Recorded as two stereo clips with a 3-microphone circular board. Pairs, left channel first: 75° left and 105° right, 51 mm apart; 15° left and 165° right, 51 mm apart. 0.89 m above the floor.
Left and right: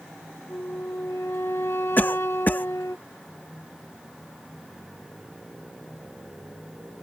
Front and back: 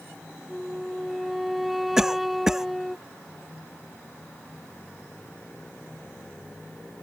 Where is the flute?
110° left.